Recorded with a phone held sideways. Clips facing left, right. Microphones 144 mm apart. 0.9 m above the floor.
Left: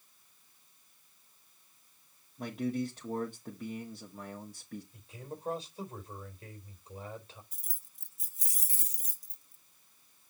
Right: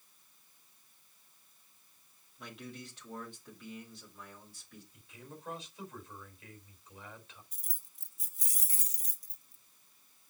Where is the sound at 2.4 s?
45° left (ahead or behind), 1.5 m.